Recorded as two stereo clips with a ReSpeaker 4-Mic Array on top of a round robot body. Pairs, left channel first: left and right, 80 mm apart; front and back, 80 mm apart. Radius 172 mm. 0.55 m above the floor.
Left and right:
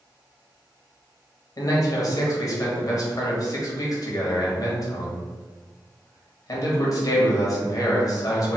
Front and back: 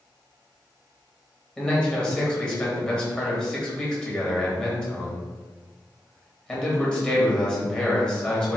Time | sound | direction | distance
1.6 | a man speaking | 75° left | 1.8 m